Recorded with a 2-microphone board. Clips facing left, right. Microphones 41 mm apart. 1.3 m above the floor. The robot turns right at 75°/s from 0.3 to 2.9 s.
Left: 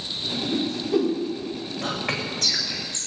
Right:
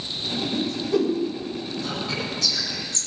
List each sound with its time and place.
0.5 s a whoosh: 45° left (ahead or behind), 3.5 m; by 1.1 s 5° right (ahead or behind), 3.5 m
1.8 s whispering: 80° left, 7.5 m; by 3.1 s 20° left (ahead or behind), 7.5 m